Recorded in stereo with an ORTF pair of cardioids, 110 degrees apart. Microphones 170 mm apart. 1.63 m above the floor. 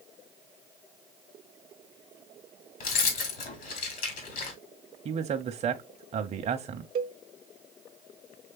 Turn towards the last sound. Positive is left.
turn(degrees=-60)